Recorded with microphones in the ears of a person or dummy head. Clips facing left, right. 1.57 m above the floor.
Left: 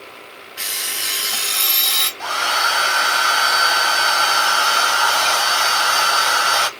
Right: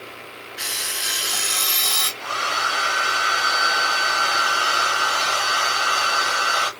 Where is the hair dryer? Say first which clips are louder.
Left 5 dB; 65° left (ahead or behind), 1.0 m.